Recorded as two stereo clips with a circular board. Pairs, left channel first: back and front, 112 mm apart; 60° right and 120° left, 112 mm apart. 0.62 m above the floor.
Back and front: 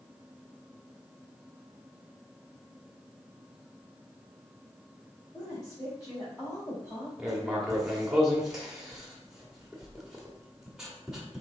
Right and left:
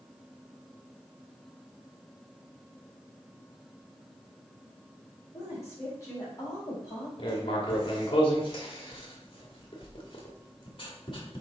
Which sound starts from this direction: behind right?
A woman speaking, at 5.3 s.